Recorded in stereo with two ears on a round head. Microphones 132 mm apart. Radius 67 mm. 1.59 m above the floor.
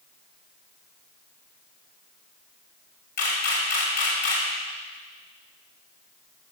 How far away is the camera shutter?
About 4.5 m.